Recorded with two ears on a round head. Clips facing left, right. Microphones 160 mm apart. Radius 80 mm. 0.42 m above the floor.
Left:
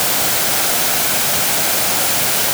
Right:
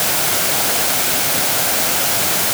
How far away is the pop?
No pop in this recording.